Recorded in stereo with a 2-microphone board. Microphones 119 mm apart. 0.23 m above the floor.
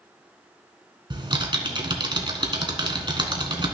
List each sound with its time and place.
1.1 s typing on a keyboard: 40° right (ahead or behind), 1.4 m